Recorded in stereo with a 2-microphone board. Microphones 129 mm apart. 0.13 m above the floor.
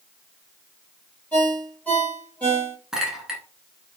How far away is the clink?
About 1.1 m.